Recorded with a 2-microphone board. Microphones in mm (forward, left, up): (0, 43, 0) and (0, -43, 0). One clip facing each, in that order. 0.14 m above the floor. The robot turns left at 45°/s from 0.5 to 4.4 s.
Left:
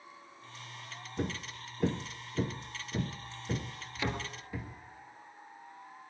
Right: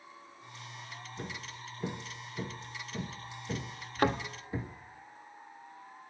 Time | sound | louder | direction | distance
1.2 | hammering | left 8 dB | 55° left (ahead or behind) | 1.2 m
4.0 | a thud | right 7 dB | 45° right (ahead or behind) | 1.1 m